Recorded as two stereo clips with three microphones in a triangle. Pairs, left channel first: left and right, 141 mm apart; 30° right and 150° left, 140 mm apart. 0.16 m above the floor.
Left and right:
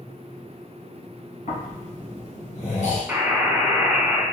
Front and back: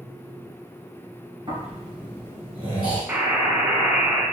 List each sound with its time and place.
1.5 s snoring: 110° left, 1.7 m
3.1 s a buzzer: 150° right, 0.7 m